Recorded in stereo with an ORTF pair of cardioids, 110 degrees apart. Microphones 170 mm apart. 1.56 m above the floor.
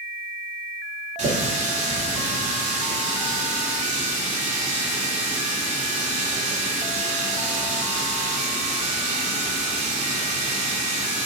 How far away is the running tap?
About 3 m.